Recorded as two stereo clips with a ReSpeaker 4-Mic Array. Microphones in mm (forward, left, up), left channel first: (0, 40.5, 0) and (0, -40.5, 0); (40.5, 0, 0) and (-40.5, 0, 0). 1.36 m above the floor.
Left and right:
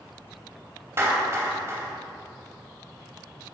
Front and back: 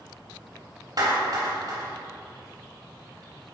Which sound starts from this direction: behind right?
A clap, at 1.0 s.